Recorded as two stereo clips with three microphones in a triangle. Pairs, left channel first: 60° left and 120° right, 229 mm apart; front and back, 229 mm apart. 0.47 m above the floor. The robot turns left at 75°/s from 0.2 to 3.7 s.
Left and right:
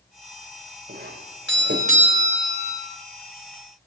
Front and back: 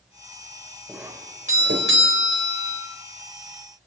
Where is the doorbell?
90° right, 3 m; by 2.9 s 120° left, 3 m.